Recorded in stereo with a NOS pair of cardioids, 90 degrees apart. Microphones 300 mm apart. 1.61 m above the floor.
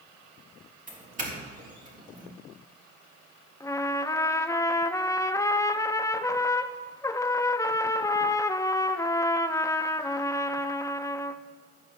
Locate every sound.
0.9 s a doorbell: 25° right, 3.5 m
3.6 s a trumpet: 10° left, 0.6 m